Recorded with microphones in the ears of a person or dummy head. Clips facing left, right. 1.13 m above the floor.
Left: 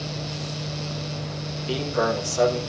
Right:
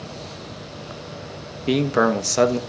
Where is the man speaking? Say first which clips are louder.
Right 6 dB; 75° right (ahead or behind), 1.4 m.